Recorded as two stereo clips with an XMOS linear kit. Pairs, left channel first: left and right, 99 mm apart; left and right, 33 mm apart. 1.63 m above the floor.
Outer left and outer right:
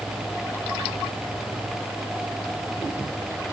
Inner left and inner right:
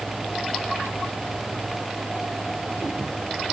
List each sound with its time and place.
Only background noise.